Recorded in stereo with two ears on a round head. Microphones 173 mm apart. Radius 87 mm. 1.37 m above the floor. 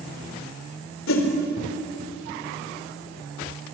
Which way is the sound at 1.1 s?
85° left.